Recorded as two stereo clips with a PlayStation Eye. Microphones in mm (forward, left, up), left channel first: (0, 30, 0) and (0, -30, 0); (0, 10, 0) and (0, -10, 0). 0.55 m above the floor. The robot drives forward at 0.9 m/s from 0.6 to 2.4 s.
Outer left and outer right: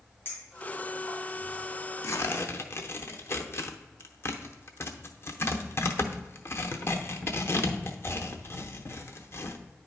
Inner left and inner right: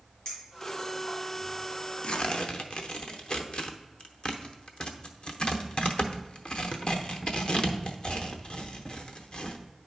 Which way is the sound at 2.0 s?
60° left (ahead or behind).